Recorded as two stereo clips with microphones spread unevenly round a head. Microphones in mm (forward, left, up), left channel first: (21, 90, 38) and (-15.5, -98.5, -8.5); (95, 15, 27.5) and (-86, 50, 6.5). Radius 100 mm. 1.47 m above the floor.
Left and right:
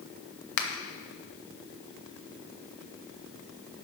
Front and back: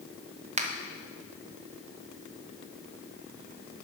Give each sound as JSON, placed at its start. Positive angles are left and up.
{"t": 0.6, "sound": "a finger snap", "azimuth_deg": 115, "distance_m": 0.9}